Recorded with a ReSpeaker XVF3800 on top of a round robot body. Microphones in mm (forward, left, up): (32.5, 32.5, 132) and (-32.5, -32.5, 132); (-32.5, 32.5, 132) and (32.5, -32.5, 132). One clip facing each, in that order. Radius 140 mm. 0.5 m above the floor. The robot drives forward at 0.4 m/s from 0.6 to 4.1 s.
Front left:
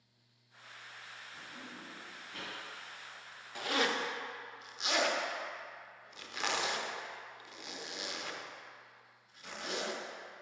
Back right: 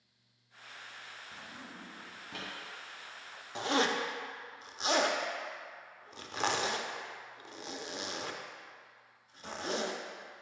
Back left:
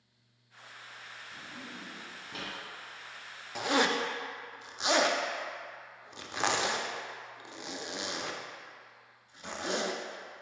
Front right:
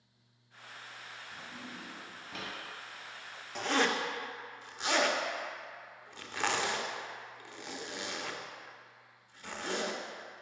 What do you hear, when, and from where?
1.3 s a drawer: 135° right, 2 m; by 2.5 s 140° right, 2.5 m
3.5 s a zipper: 150° right, 0.6 m; by 10.0 s 165° right, 0.7 m